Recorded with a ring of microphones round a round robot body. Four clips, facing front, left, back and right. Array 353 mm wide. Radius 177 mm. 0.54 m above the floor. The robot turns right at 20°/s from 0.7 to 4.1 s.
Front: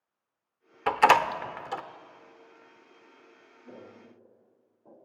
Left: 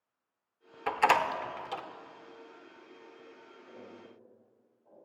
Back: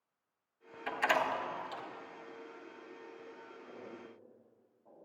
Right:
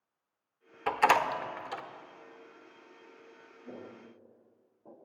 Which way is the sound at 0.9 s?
Straight ahead.